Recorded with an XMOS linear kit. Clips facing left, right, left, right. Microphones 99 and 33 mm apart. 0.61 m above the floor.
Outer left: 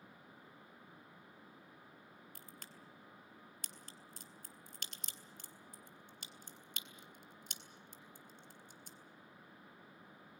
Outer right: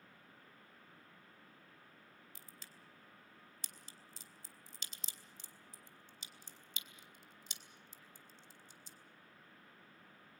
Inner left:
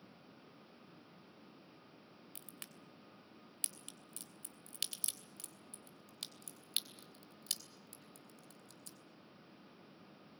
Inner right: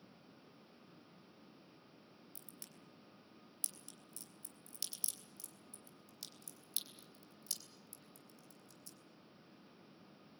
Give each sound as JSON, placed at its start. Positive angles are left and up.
{"t": 2.4, "sound": "a crack", "side_deg": 55, "distance_m": 2.5}